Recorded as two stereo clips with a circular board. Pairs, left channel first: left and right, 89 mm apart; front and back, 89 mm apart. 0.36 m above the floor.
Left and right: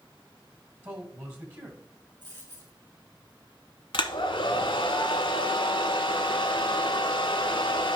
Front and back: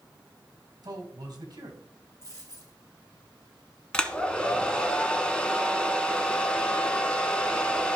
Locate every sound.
0.8 s a man speaking: 145° right, 2.5 m
2.2 s a dropped coin: 55° right, 4 m
3.9 s a hair dryer: 75° left, 0.8 m